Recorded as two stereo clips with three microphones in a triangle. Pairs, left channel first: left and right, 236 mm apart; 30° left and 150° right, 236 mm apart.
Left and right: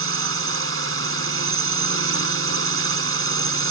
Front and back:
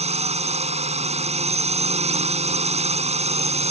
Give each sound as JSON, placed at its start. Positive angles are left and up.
{"t": 0.0, "sound": "a drone", "azimuth_deg": -90}